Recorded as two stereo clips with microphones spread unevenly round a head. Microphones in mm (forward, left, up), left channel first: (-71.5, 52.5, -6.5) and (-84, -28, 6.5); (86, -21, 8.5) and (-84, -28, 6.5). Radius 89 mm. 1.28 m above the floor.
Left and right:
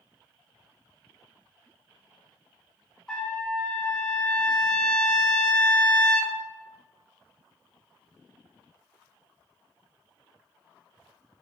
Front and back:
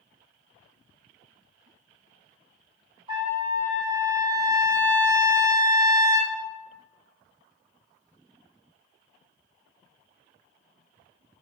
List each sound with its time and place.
3.1 s a trumpet: 170° left, 0.9 m